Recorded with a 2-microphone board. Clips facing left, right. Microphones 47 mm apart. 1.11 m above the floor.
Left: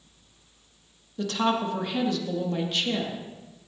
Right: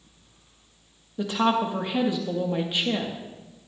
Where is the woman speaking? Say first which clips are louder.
Right 2 dB; 15° right (ahead or behind), 1.7 m.